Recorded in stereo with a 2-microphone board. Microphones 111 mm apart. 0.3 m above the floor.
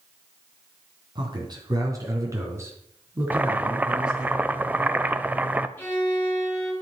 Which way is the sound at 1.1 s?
40° right (ahead or behind).